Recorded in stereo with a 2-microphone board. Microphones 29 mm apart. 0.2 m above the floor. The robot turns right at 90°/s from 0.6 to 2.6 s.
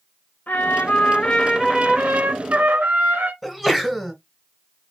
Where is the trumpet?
90° left, 1.9 m; by 3.3 s 90° right, 1.9 m.